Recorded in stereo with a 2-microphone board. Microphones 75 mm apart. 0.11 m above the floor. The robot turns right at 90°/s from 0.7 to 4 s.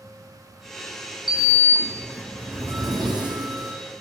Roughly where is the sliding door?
Left.